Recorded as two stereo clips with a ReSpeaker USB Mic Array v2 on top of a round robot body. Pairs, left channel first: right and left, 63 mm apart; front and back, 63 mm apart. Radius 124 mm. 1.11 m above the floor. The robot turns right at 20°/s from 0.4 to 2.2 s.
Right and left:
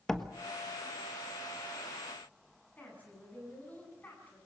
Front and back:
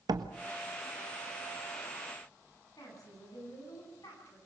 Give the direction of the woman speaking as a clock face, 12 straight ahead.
1 o'clock.